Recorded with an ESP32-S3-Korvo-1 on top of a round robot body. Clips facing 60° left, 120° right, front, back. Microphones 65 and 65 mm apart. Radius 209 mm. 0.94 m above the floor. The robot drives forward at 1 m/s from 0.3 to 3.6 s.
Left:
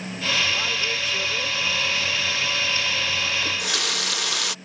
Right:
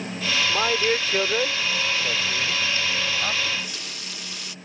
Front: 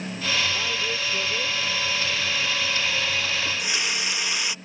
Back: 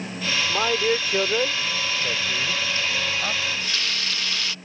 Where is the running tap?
65° left; by 4.5 s 75° left.